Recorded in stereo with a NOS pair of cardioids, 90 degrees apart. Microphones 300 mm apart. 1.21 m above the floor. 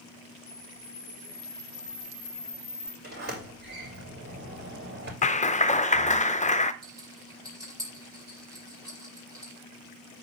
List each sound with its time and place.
0.5 s a camera shutter: 5° left, 3 m
3.0 s a sliding door: 35° right, 5 m
5.2 s a clap: 25° left, 0.5 m
6.8 s a rattle: 10° right, 6 m